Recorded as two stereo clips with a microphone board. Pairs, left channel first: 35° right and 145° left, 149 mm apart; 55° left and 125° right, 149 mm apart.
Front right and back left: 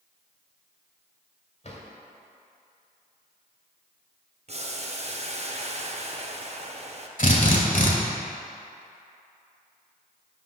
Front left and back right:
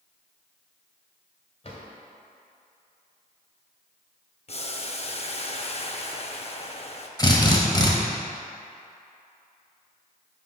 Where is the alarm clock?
No alarm clock in this recording.